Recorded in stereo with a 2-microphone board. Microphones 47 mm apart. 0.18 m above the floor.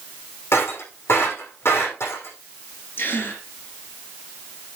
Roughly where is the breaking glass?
Left.